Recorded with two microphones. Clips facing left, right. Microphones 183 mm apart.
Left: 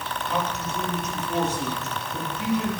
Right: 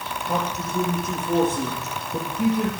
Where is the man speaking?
60° right (ahead or behind), 4 m.